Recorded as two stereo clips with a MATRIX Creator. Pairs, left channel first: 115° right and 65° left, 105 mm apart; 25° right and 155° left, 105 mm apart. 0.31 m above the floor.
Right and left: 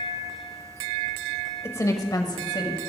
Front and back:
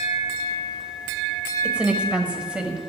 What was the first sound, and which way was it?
A woman speaking, 135° right.